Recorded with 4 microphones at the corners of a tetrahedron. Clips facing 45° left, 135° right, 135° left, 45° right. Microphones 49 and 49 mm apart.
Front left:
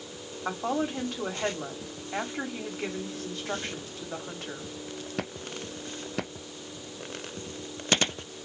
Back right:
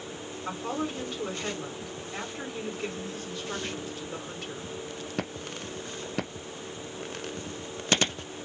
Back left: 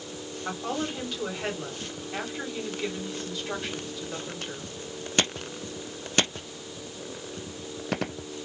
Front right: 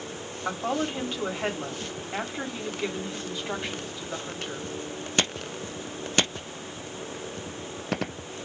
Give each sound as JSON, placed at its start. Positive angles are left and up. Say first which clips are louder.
{"t": 0.5, "sound": "a woman speaking", "louder": "front left 3 dB, front right 3 dB", "azimuth_deg": 20, "distance_m": 1.4}